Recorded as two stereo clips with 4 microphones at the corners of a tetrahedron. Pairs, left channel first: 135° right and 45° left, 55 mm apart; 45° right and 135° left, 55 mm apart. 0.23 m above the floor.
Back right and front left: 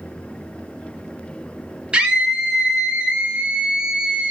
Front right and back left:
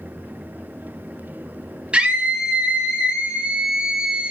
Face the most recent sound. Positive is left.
turn(degrees=95)